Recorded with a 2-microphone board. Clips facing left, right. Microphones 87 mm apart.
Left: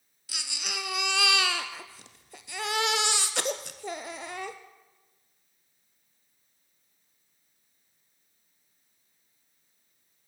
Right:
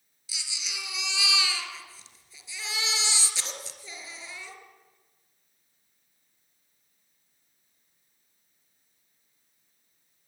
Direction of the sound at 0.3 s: 60° left (ahead or behind).